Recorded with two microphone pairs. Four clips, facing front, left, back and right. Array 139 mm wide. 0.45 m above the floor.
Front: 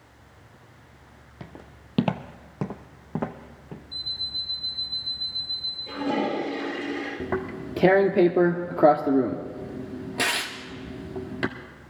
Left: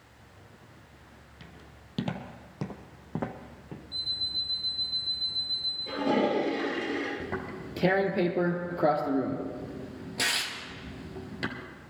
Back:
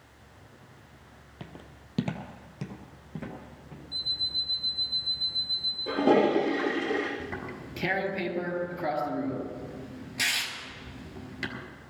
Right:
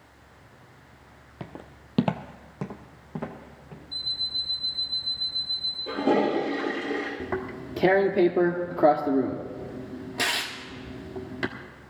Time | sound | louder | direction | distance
1.4 | footsteps | right 12 dB, front 2 dB | 85° right | 1.0 m
3.9 | an alarm clock | right 2 dB, even | 160° right | 6 m
5.9 | a toilet flushing | right 3 dB, back 4 dB | 165° right | 6 m
7.2 | tearing paper | right 4 dB, front 8 dB | 15° right | 1.4 m